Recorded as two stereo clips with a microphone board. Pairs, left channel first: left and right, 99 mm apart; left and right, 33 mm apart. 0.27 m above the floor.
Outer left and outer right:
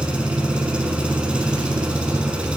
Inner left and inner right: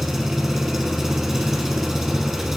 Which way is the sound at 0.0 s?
10° right (ahead or behind).